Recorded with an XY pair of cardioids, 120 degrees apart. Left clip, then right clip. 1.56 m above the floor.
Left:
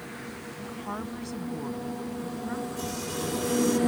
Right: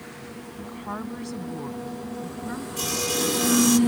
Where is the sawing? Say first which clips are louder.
Right 7 dB; 70° right.